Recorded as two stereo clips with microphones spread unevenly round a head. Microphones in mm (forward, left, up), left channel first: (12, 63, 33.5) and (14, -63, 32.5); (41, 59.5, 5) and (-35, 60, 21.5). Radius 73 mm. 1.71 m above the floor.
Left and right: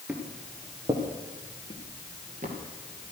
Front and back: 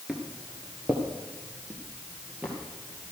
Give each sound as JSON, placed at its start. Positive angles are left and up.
{"t": 0.1, "sound": "footsteps", "azimuth_deg": -160, "distance_m": 1.7}